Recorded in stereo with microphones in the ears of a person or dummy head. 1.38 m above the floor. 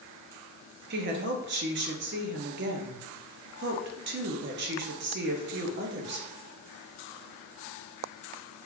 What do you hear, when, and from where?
0.9 s a woman speaking: 55° right (ahead or behind), 0.6 m